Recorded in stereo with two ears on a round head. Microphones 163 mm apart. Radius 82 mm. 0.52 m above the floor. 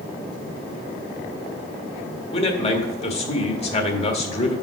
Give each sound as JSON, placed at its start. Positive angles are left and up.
{"t": 2.3, "sound": "a man speaking", "side_deg": 35, "distance_m": 1.6}